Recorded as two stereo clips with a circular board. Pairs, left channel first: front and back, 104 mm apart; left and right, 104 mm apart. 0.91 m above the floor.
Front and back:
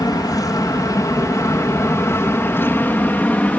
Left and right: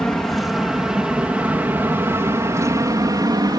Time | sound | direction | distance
0.0 | an aircraft | 5° left | ?